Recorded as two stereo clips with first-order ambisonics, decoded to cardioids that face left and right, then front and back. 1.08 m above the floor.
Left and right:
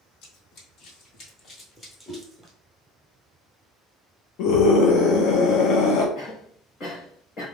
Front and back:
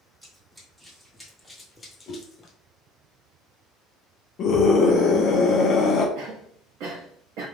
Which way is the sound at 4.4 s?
55° left.